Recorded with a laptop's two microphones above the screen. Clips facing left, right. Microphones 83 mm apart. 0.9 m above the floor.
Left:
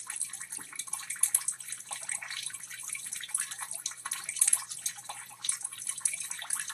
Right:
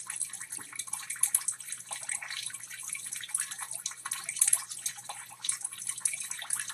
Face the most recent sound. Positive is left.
No sound to turn to.